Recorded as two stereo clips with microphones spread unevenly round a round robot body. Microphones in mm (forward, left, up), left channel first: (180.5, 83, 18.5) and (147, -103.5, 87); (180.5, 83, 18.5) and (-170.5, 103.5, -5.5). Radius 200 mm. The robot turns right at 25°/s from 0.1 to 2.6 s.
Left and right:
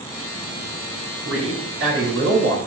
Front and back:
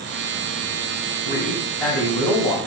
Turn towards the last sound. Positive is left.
turn(degrees=-70)